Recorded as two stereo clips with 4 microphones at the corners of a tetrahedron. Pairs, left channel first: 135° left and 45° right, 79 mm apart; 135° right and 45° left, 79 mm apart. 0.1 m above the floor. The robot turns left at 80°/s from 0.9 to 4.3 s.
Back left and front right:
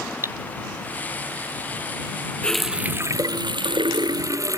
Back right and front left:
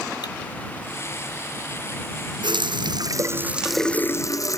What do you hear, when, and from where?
0.2 s cutlery clinking: 100° right
2.4 s a running tap: 60° left; by 4.6 s 90° right